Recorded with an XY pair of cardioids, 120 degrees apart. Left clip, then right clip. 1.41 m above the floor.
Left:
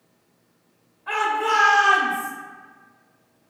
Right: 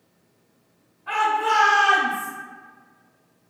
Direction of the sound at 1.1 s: 15° left.